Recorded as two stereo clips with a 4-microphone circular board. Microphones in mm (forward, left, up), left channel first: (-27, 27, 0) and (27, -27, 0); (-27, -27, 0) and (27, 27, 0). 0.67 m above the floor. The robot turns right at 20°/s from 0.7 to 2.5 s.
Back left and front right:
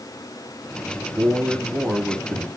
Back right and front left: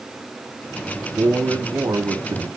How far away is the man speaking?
About 1.6 m.